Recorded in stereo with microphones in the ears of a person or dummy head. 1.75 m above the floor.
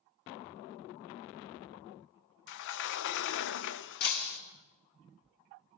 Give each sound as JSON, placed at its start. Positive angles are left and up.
{"t": 2.5, "sound": "a sliding door", "side_deg": 65, "distance_m": 0.6}
{"t": 4.0, "sound": "breaking glass", "side_deg": 45, "distance_m": 2.0}